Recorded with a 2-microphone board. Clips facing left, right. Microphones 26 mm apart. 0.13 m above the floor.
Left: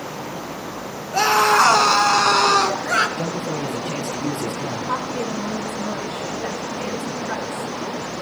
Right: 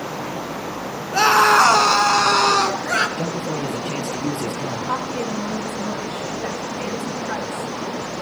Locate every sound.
1.1 s a scream: 30° right (ahead or behind), 1.7 m; by 3.1 s 25° left (ahead or behind), 1.8 m
3.2 s a man speaking: 60° right (ahead or behind), 3 m
4.9 s a woman speaking: 55° right (ahead or behind), 9 m